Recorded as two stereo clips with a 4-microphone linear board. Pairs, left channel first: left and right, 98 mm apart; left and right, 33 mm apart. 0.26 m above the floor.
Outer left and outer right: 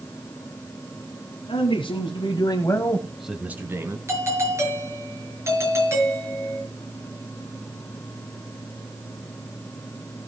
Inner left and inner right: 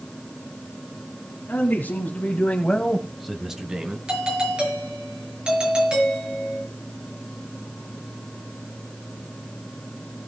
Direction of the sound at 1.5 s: 65° left (ahead or behind).